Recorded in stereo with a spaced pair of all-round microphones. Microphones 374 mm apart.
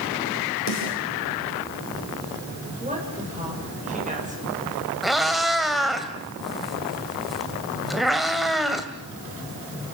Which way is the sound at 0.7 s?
45° left (ahead or behind).